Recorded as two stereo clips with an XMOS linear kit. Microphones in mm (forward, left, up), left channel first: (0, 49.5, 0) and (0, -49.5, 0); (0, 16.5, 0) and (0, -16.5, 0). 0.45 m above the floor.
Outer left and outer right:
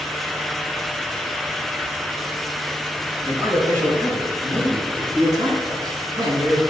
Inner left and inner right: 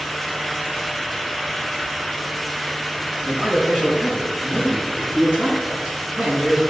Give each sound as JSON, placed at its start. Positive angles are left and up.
{"t": 3.2, "sound": "a man speaking", "side_deg": -25, "distance_m": 5.5}